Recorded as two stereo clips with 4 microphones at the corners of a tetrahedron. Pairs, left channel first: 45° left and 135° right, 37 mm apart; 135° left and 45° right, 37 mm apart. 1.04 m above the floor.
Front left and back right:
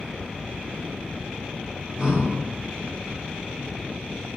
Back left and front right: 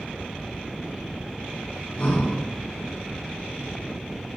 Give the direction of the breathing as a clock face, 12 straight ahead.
7 o'clock.